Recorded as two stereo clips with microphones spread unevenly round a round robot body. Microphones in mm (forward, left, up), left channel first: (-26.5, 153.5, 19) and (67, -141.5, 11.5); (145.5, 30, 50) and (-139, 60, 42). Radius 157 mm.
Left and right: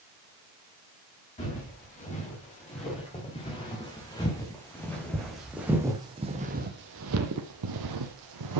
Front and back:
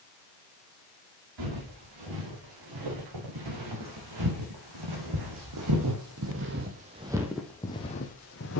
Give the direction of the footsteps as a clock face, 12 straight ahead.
6 o'clock.